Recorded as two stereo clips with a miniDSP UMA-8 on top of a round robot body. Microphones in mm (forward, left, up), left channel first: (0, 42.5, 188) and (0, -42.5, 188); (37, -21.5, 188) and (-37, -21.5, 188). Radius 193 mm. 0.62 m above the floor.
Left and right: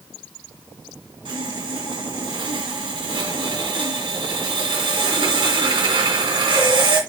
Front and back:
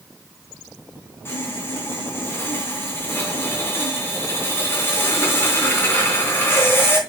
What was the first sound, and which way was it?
Sawing, 60° right.